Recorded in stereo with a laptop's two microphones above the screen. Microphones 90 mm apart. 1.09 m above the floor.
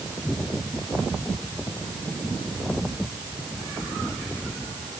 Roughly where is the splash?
I don't hear a splash.